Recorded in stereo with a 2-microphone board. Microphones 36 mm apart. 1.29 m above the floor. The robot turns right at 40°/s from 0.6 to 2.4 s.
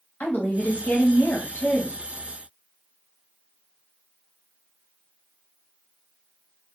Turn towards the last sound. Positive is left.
turn(degrees=120)